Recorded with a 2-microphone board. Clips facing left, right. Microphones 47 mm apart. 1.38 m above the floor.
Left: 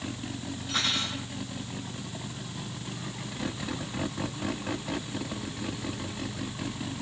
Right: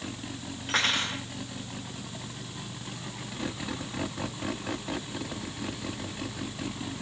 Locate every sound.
0.7 s cutlery clinking: 60° right (ahead or behind), 3 m